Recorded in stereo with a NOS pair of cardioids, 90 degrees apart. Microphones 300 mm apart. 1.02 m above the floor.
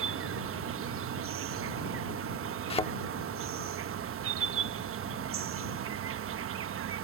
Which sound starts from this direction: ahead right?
An insect, at 0.0 s.